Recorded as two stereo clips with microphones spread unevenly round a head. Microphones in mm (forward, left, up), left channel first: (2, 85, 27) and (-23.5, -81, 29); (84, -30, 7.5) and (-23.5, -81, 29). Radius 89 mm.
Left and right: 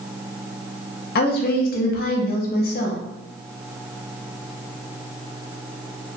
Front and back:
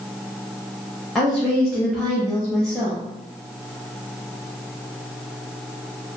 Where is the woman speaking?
115° left, 0.6 m.